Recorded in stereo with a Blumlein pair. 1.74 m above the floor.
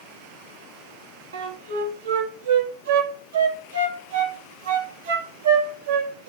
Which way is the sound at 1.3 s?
60° right.